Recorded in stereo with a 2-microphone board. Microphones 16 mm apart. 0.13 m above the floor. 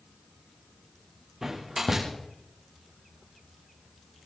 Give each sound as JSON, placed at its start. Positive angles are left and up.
{"t": 1.4, "sound": "a door slam", "side_deg": -25, "distance_m": 9.0}